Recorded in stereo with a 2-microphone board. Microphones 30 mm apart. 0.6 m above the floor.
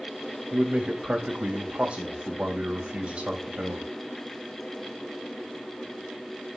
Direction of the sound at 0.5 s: 40° right (ahead or behind).